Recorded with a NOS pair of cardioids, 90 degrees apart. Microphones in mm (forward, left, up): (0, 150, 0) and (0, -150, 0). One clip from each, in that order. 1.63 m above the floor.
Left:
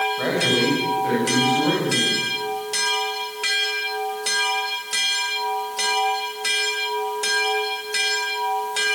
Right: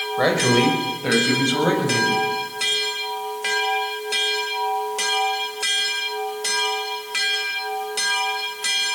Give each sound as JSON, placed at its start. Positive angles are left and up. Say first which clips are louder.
{"t": 0.2, "sound": "a man speaking", "louder": "right 2 dB", "azimuth_deg": -60, "distance_m": 6.5}